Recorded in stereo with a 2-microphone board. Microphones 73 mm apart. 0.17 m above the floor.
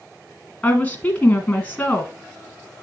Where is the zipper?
I don't hear a zipper.